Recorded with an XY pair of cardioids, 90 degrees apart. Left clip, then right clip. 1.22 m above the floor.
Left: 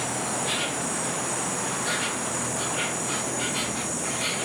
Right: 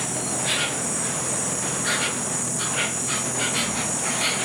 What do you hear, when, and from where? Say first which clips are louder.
0.0 s an insect: right 1 dB; 50° right, 1.8 m